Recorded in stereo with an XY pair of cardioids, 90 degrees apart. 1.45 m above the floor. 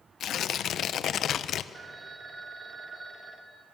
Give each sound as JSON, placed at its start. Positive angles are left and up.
{"t": 0.2, "sound": "tearing paper", "azimuth_deg": 65, "distance_m": 1.0}
{"t": 1.7, "sound": "a phone ringing", "azimuth_deg": -45, "distance_m": 2.0}